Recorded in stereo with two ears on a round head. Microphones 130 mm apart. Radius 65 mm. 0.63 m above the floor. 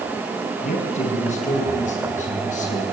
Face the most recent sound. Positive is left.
turn(degrees=60)  # may be behind; listen again after turning